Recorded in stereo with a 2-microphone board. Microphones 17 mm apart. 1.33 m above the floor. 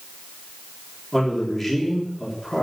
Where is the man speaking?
5° left (ahead or behind), 3.5 m.